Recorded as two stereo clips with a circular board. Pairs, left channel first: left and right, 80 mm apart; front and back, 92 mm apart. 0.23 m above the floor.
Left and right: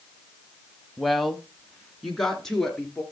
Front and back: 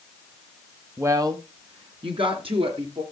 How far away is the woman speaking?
About 1.0 m.